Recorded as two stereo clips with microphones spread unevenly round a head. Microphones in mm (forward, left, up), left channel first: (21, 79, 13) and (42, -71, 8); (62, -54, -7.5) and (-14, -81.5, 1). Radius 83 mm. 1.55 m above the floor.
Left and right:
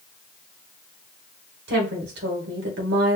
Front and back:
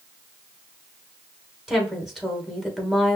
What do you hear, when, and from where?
1.7 s a woman speaking: 75° right, 1.8 m